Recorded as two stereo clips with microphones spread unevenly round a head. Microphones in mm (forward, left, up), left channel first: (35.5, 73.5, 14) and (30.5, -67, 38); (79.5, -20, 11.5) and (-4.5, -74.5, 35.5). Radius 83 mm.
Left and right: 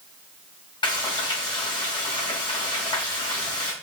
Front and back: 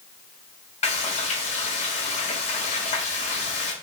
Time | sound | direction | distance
0.8 | frying | 25° left | 2 m